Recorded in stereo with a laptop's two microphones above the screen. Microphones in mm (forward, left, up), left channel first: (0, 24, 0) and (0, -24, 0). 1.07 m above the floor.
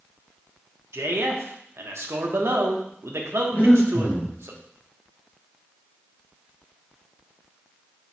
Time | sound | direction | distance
0.9 | a man speaking | 65° right (ahead or behind) | 1.2 m
3.5 | breathing | 45° left (ahead or behind) | 2.5 m